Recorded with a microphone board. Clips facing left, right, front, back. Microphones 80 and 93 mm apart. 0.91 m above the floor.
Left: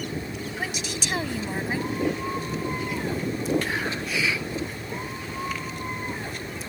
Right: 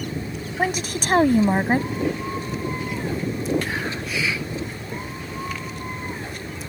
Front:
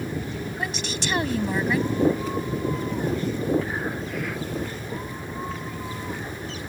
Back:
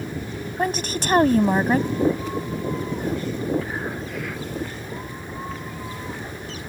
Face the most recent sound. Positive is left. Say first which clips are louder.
# right 10 dB, back 9 dB
turn(degrees=-135)